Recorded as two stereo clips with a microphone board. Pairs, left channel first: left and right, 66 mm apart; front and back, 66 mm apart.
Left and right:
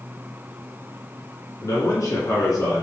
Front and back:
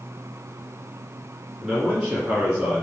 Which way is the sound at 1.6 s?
95° left.